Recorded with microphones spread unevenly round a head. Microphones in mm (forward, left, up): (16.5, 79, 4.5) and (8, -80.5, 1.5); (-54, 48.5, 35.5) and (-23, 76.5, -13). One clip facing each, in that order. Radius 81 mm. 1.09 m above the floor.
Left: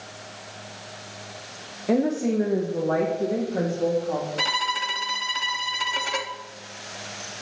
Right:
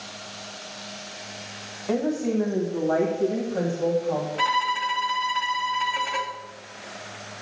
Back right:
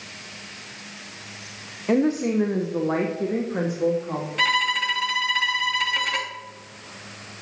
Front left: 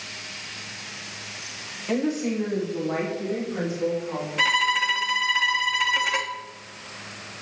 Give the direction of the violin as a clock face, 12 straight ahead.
10 o'clock.